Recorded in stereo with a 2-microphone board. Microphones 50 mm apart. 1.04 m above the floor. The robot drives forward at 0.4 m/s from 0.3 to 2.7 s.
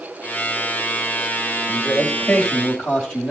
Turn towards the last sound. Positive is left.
turn(degrees=10)  # may be behind; listen again after turning